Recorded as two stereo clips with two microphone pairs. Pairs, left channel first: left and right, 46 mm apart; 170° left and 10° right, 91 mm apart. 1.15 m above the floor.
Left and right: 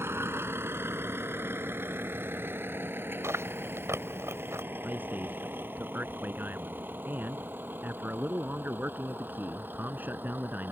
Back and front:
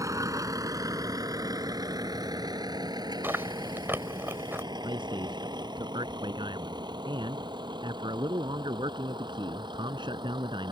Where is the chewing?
75° right.